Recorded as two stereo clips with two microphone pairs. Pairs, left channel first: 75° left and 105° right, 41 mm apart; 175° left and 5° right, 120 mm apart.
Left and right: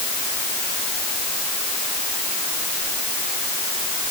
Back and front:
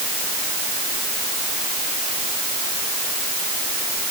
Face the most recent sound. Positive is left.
No sound to turn to.